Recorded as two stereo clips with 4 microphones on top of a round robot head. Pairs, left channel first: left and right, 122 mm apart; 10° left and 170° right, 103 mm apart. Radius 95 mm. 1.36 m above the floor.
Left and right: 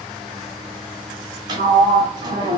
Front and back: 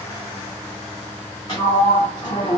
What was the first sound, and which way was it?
A sliding door, 50° right.